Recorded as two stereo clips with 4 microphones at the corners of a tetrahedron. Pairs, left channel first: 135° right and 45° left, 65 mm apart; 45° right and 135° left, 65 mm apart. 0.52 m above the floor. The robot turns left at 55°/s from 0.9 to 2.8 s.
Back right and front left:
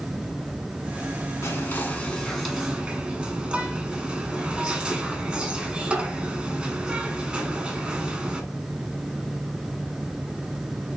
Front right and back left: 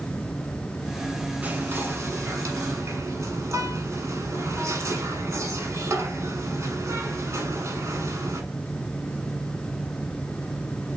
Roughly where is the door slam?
No door slam in this recording.